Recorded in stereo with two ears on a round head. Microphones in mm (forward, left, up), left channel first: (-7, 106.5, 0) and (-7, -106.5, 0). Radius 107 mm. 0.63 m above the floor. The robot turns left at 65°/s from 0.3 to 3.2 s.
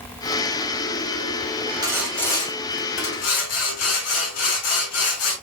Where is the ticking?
I don't hear ticking.